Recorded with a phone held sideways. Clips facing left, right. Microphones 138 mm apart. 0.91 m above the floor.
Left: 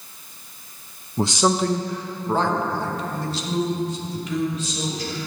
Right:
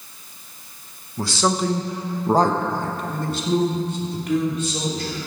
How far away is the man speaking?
About 0.8 m.